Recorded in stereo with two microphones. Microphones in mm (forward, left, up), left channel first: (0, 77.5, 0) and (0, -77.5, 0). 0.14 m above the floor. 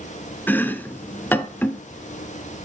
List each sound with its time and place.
0.5 s chopping: 15° left (ahead or behind), 0.9 m